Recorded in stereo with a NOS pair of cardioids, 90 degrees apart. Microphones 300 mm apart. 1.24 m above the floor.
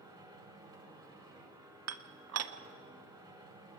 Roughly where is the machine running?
Ahead.